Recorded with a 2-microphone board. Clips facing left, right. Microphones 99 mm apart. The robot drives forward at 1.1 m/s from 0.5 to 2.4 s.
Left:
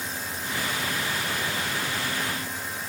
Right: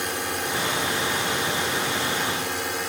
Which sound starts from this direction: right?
A drone, at 0.0 s.